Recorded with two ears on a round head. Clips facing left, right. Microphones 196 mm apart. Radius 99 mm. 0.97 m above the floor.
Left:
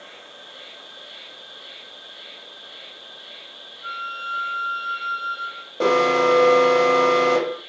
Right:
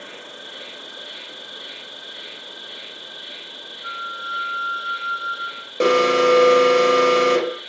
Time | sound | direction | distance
0.0 | an insect | 65° right (ahead or behind) | 1.0 m
3.8 | a flute | 35° left (ahead or behind) | 0.8 m
5.8 | an alarm | 30° right (ahead or behind) | 1.1 m